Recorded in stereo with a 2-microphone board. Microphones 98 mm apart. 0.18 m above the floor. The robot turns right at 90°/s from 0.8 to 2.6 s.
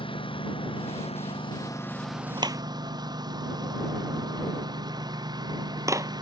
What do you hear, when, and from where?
0.0 s a lawn mower: 65° left; by 6.2 s 135° right
2.4 s a clap: 55° right (ahead or behind); by 6.1 s 35° right (ahead or behind)